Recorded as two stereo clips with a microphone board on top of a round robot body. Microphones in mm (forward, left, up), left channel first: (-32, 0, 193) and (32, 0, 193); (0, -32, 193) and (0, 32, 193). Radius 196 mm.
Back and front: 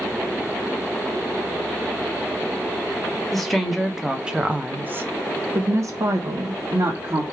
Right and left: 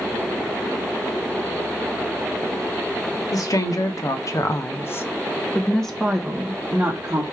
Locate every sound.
3.3 s a woman speaking: 95° right, 1.4 m; by 7.2 s 25° left, 1.5 m